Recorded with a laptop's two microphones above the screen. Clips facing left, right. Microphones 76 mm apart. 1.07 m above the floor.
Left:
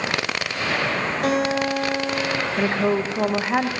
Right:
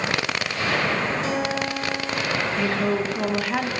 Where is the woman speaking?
25° left (ahead or behind), 1.1 m.